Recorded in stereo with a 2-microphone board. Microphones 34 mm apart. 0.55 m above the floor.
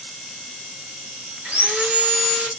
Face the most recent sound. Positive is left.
turn(degrees=-45)  # may be behind; listen again after turning